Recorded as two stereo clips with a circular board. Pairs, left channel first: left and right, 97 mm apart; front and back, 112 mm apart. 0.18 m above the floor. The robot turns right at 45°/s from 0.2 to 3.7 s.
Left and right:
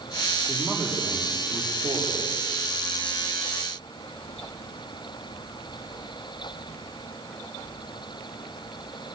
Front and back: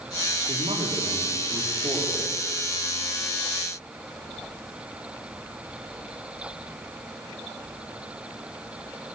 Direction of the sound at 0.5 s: 165° left.